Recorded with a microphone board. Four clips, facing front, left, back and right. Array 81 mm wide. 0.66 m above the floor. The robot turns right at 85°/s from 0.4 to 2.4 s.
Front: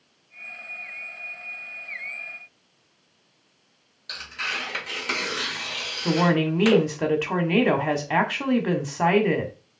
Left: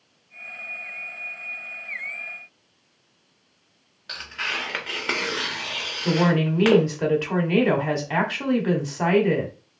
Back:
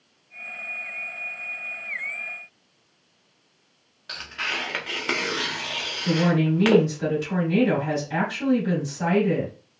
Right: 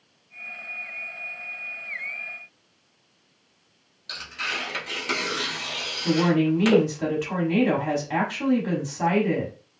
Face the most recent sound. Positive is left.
turn(degrees=20)